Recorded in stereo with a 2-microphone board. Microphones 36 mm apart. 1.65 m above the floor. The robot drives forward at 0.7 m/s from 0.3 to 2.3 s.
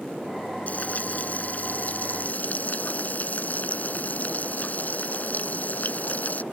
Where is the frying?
40° left (ahead or behind); by 6.4 s 45° left (ahead or behind).